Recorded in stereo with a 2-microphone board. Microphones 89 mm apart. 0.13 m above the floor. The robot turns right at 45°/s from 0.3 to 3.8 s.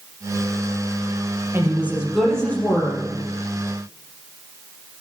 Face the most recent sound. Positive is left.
turn(degrees=75)